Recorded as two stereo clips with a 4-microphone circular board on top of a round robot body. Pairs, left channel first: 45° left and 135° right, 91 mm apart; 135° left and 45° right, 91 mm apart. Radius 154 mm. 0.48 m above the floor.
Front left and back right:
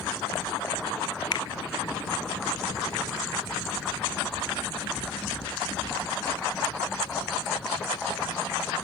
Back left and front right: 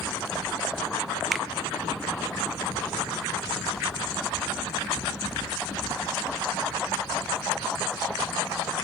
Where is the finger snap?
40° left, 1.7 m.